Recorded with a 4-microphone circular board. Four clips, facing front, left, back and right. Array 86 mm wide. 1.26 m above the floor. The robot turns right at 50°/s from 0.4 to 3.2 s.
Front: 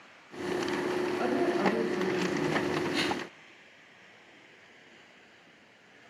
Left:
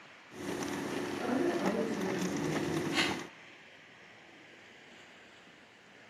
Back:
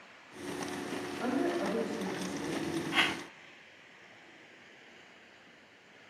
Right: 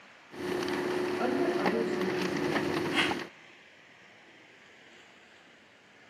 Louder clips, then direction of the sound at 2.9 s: Right 3 dB, front 2 dB; 155° right.